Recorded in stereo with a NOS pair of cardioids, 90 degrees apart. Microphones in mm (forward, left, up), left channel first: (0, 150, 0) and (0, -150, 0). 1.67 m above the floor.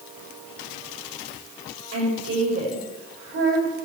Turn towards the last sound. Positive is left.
turn(degrees=-45)